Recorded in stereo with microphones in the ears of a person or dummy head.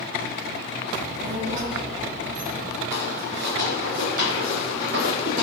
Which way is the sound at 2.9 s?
45° right (ahead or behind).